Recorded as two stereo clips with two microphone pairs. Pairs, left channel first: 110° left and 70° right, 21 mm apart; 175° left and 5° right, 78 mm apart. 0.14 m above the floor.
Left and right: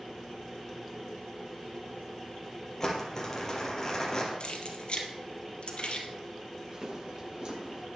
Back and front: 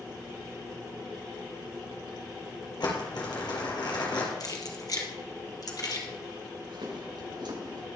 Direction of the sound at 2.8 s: 175° left.